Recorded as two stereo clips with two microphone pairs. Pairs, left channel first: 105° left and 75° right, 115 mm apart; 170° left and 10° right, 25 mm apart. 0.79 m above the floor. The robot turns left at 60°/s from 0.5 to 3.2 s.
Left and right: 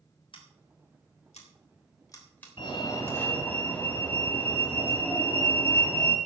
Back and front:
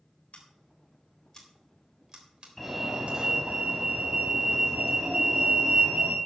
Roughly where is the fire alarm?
Left.